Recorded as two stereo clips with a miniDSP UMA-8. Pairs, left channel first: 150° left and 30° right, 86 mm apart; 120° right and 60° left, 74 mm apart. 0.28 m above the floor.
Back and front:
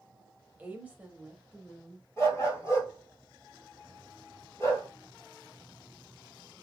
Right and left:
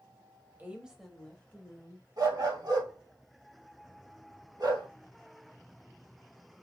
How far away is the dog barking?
About 1.8 m.